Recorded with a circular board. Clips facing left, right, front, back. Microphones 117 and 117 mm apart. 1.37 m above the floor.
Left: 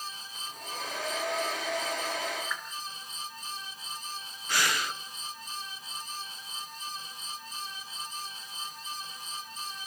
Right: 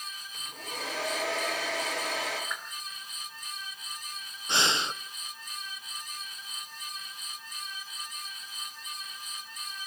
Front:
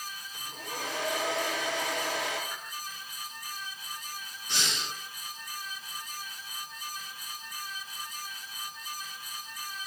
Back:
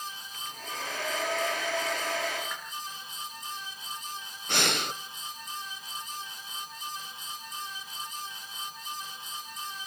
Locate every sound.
0.3 s a hair dryer: 70° right, 9.5 m
2.5 s a whoosh: 165° right, 4.5 m
4.5 s breathing: 155° right, 0.7 m